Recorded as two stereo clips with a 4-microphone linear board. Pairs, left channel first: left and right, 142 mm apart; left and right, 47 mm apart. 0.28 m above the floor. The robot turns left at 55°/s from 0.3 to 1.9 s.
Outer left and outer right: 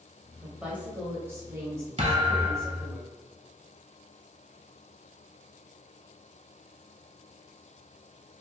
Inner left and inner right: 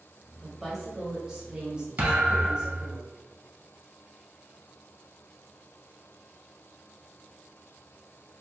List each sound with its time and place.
0.4 s a woman speaking: 5° right (ahead or behind), 0.9 m; by 3.0 s 20° right (ahead or behind), 0.9 m
2.0 s a thud: 50° right (ahead or behind), 1.0 m